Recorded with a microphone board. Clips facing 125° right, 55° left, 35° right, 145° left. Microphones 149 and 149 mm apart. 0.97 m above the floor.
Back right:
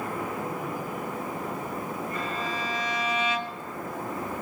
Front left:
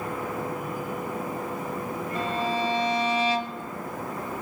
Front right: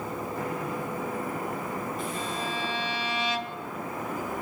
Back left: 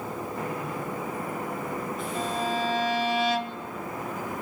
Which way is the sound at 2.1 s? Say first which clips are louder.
Front left 4 dB, back left 4 dB; 110° left.